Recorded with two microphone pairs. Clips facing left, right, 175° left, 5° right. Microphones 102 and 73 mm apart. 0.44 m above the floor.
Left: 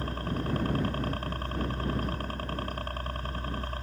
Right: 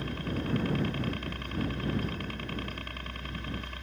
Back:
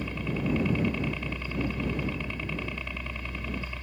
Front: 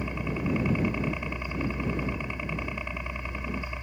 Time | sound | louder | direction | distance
0.0 | a helicopter | left 1 dB, even | 60° left | ?